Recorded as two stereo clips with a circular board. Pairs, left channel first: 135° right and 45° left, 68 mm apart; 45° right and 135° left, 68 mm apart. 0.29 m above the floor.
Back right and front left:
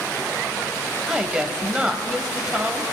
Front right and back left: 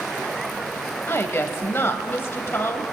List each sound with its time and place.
1.1 s a woman speaking: 25° right, 1.1 m